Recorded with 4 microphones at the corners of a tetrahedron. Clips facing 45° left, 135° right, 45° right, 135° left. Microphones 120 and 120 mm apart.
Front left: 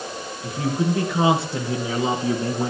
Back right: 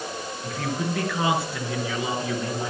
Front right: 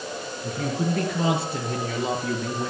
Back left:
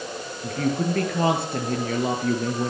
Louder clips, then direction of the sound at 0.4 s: Front left 6 dB, back left 3 dB; 115° left.